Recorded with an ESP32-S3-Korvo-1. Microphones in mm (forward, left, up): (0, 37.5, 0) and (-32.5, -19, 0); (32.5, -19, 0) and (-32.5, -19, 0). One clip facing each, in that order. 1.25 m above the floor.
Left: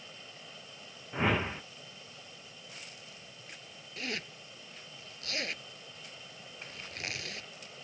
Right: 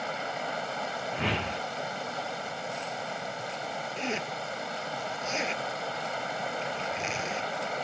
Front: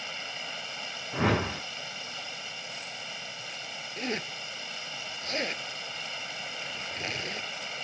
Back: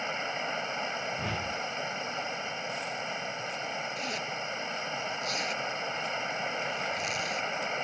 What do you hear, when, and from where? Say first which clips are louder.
0.0 s running water: right 19 dB, back 6 dB; 120° right
1.1 s a whoosh: left 3 dB, front 6 dB; 15° right
4.0 s a zipper: right 4 dB, even; 50° right